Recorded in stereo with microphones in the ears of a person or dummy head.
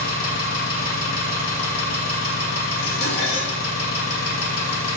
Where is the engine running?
75° left (ahead or behind), 1.9 m.